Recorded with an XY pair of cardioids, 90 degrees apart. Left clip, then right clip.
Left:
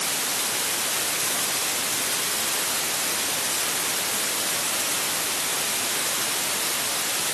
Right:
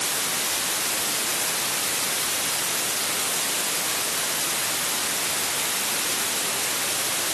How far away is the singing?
I don't hear singing.